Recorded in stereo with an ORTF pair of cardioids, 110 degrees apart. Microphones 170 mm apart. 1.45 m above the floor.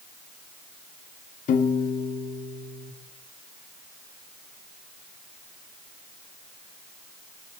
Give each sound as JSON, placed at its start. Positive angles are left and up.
{"t": 1.5, "sound": "a piano", "azimuth_deg": 55, "distance_m": 1.7}